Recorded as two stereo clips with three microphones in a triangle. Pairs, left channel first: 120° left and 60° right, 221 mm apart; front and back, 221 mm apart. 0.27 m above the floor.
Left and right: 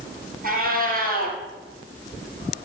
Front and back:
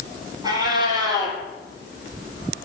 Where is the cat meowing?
110° right, 1.9 m.